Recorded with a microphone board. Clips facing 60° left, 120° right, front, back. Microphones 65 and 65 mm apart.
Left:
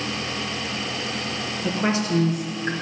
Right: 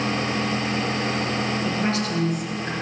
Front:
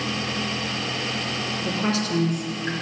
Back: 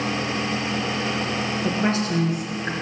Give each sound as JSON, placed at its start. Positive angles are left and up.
{"t": 1.6, "sound": "a woman speaking", "azimuth_deg": 135, "distance_m": 3.0}